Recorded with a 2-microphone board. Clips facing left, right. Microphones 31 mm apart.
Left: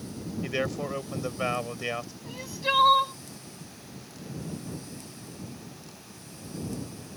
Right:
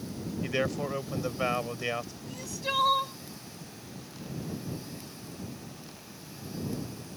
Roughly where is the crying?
Left.